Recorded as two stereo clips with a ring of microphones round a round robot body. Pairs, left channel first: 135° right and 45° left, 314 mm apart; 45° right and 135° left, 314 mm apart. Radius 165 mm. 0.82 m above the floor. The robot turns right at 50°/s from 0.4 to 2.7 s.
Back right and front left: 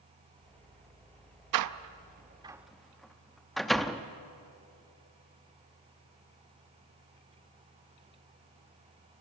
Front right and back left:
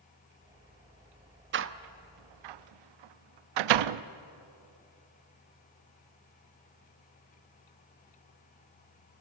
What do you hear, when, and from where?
1.5 s a door slam: 75° left, 0.6 m; by 4.0 s 135° left, 0.6 m